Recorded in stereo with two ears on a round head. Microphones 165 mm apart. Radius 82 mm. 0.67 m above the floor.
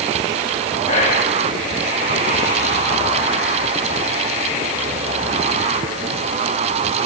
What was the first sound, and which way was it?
Whispering, 35° left (ahead or behind).